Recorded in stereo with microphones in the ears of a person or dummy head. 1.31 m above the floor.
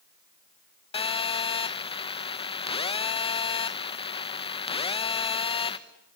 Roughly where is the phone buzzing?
Left.